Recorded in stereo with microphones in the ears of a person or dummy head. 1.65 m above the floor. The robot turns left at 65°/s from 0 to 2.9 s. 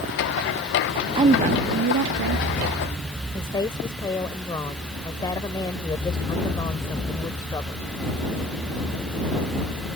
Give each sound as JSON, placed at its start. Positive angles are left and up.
{"t": 1.1, "sound": "a woman speaking", "azimuth_deg": -30}
{"t": 3.3, "sound": "a woman speaking", "side_deg": 20}